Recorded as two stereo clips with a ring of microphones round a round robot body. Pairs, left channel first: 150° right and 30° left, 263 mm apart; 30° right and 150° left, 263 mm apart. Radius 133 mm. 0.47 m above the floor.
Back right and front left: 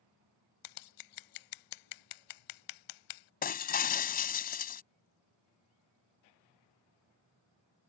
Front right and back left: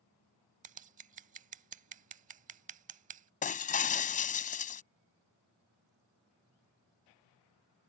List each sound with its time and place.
0.6 s scissors: 145° right
3.4 s breaking glass: 90° right